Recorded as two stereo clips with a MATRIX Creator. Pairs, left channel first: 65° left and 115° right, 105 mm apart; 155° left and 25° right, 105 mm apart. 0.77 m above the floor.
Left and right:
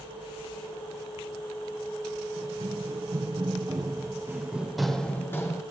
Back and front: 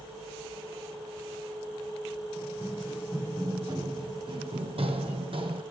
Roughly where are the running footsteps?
Right.